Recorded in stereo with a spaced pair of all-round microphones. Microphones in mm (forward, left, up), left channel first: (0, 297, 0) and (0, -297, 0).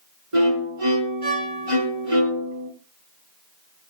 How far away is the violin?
About 5.5 m.